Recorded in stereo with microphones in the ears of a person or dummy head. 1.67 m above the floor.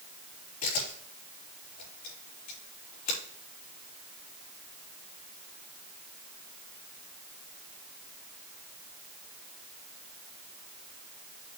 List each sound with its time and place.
0.6 s a camera shutter: 50° left (ahead or behind), 4 m